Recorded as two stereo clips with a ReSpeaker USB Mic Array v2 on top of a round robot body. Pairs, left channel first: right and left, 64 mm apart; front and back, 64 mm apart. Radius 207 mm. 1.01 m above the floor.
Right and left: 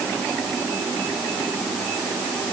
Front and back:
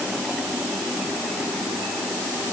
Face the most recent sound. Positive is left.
No sound to turn to.